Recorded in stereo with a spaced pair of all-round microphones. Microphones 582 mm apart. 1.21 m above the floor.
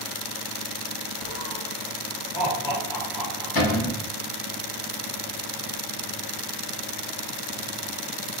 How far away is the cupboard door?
About 1.2 m.